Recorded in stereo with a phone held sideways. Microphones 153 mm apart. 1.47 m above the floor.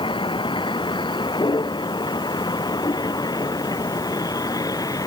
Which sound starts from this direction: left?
A vehicle, at 0.0 s.